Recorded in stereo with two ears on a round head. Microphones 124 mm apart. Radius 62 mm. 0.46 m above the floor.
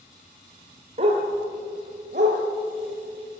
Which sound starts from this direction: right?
A dog barking, at 1.0 s.